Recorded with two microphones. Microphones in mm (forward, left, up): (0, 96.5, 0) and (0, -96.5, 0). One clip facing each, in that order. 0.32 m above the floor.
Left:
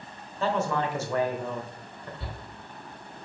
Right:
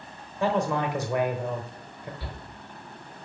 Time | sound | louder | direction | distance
0.4 | a man speaking | right 2 dB | 15° right (ahead or behind) | 1.1 m
2.2 | a shout | even | 25° left (ahead or behind) | 3 m